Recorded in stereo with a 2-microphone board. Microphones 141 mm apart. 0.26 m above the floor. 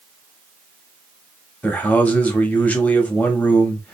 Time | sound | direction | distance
1.6 | a man speaking | 10° left (ahead or behind) | 1.0 m